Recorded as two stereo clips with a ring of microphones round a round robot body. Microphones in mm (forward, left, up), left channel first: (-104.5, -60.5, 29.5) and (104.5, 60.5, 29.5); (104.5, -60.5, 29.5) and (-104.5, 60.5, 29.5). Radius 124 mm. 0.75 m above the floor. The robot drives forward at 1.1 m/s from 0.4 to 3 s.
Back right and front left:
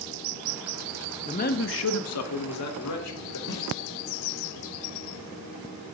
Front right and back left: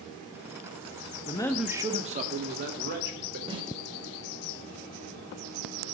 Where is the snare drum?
140° right, 2.5 m.